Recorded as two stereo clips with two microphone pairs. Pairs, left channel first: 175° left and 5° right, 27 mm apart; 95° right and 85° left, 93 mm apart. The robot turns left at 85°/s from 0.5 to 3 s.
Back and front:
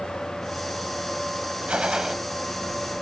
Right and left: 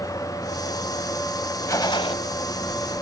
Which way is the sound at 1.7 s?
40° right.